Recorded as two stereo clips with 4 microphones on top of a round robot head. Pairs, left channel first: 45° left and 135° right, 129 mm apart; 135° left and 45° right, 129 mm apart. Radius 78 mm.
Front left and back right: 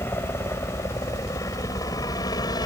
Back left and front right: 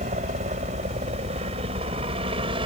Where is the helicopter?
25° right; by 2.7 s 5° right.